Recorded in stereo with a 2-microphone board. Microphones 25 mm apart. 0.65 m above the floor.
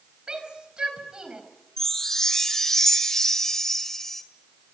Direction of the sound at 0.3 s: 40° right (ahead or behind).